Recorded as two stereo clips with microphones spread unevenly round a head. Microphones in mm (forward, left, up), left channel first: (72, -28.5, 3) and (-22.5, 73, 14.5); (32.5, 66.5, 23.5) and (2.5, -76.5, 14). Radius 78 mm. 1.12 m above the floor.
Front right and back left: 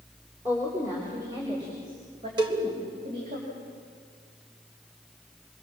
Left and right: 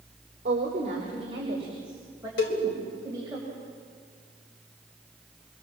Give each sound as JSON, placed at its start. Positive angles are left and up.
{"t": 0.5, "sound": "a woman speaking", "azimuth_deg": -150, "distance_m": 3.5}
{"t": 2.4, "sound": "a cowbell", "azimuth_deg": 75, "distance_m": 3.5}